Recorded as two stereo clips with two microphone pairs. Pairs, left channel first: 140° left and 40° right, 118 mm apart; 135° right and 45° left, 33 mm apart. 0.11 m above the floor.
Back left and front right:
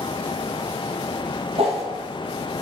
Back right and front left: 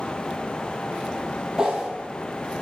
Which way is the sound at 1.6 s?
20° right.